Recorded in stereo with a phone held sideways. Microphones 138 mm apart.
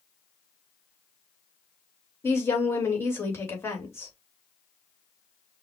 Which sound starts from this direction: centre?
A woman speaking, at 2.2 s.